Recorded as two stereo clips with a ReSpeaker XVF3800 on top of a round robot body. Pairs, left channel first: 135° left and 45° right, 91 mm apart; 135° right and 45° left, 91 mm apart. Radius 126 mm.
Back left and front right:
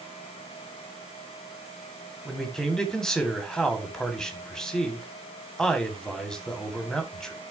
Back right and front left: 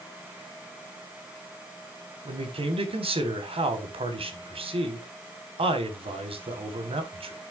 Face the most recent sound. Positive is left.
turn(degrees=50)